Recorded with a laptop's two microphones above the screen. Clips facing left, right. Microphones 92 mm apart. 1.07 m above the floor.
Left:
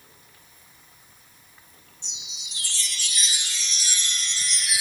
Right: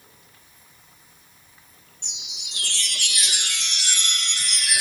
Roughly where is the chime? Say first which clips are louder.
Right 2 dB; right.